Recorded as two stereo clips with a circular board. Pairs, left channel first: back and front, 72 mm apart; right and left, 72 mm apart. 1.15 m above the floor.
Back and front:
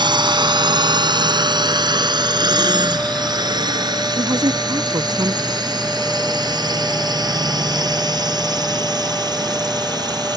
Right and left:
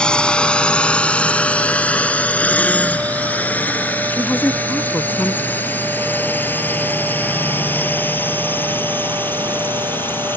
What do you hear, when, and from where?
0.0 s a drone: 10° right; by 10.4 s 25° right
4.1 s a woman speaking: 25° right